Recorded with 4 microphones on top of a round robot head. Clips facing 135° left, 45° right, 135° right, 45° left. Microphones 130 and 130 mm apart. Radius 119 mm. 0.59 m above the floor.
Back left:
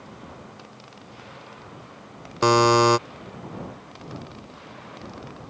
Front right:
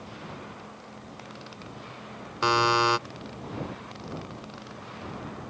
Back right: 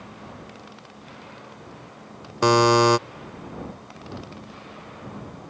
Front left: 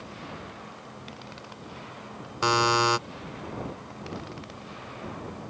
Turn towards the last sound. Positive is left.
turn(degrees=-175)